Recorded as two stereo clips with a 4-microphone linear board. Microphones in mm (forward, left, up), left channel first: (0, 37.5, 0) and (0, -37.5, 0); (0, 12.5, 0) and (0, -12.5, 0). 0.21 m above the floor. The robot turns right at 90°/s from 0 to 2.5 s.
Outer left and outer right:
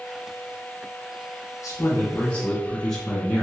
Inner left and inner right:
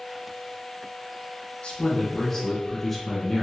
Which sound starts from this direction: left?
A man speaking, at 1.6 s.